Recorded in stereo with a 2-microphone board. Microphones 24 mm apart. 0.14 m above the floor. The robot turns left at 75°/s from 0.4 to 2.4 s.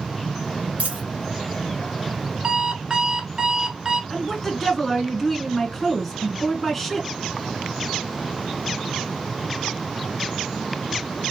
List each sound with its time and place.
0.8 s a dropped coin: 70° right (ahead or behind), 1.5 m; by 1.0 s 85° right, 1.5 m
2.4 s an alarm clock: 30° right (ahead or behind), 1.0 m
4.1 s a woman speaking: 15° left (ahead or behind), 1.4 m